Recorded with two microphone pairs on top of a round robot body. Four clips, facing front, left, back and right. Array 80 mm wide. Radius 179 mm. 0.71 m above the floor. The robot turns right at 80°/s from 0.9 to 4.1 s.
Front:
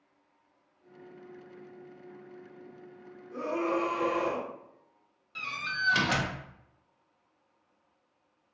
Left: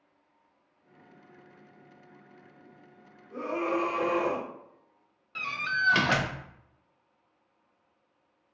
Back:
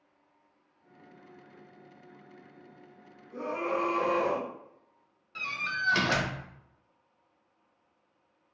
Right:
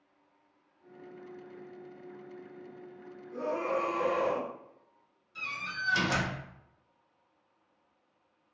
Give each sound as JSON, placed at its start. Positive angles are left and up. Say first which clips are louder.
{"t": 3.3, "sound": "a scream", "louder": "left 2 dB, front 1 dB", "azimuth_deg": 50, "distance_m": 1.3}
{"t": 5.3, "sound": "a door slam", "louder": "left 8 dB, back 1 dB", "azimuth_deg": 100, "distance_m": 0.8}